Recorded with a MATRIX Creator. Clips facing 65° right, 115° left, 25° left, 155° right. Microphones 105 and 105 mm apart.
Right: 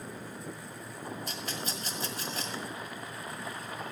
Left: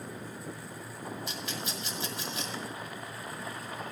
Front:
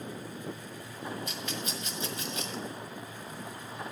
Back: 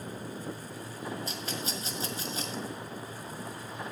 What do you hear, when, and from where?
1.3 s a rattle: 110° right, 1.8 m